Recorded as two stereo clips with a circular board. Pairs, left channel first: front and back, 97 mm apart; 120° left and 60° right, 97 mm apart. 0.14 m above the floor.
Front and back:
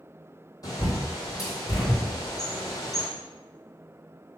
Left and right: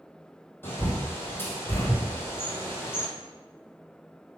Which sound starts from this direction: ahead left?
A bird, at 0.6 s.